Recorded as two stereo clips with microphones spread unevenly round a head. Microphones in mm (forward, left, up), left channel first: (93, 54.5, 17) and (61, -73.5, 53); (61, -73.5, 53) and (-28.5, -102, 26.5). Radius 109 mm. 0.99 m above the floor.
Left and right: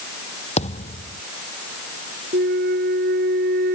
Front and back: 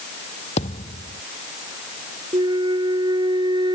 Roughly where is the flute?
Behind right.